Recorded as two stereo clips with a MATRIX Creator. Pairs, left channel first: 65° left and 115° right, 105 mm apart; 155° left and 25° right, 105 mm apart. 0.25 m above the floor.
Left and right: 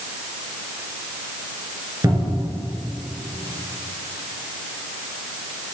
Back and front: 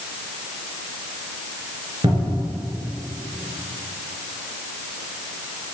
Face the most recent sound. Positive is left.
turn(degrees=-55)